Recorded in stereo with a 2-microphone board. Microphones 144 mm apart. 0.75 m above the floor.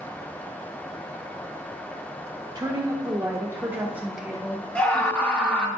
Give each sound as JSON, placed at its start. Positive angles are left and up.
{"t": 2.5, "sound": "a woman speaking", "side_deg": -30, "distance_m": 2.0}
{"t": 4.8, "sound": "a scream", "side_deg": 10, "distance_m": 1.4}